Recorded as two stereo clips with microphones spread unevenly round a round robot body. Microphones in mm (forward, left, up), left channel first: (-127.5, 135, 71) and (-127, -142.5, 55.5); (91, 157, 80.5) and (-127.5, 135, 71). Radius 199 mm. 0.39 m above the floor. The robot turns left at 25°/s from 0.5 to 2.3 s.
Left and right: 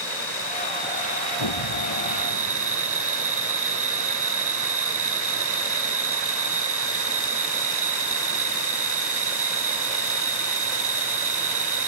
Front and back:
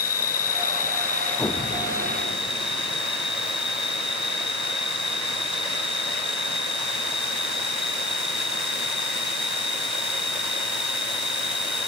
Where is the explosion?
80° left; by 3.0 s 55° left.